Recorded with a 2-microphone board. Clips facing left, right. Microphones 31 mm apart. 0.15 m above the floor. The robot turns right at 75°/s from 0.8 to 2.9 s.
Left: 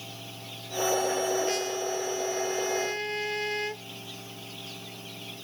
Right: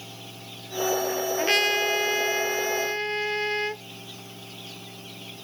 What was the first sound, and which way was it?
A trumpet, 135° right.